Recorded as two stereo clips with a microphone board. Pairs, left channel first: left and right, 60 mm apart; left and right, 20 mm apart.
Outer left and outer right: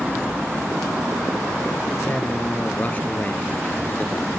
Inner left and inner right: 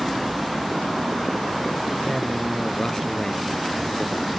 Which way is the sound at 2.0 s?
25° left (ahead or behind).